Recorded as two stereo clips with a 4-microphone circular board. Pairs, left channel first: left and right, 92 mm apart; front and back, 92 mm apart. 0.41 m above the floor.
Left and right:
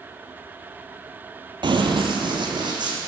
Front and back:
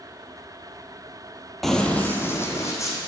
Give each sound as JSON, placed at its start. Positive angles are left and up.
{"t": 1.6, "sound": "running footsteps", "azimuth_deg": -90, "distance_m": 0.7}